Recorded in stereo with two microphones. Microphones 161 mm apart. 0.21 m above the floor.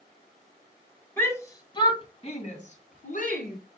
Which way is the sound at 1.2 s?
15° left (ahead or behind).